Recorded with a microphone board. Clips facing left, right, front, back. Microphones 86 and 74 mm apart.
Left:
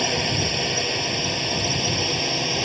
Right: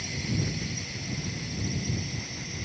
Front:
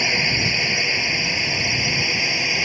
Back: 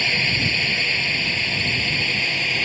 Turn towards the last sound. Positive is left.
turn(degrees=80)